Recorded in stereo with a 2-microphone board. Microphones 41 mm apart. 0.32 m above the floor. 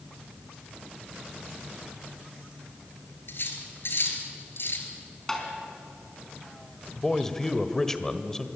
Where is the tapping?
10° left (ahead or behind), 4 m.